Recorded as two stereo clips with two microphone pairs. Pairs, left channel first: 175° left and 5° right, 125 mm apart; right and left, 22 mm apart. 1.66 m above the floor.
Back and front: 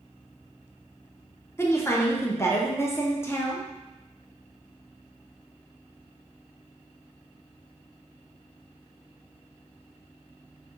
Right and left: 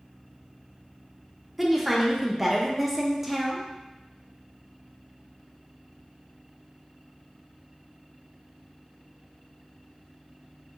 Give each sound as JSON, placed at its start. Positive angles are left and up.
{"t": 1.6, "sound": "a woman speaking", "azimuth_deg": 155, "distance_m": 0.6}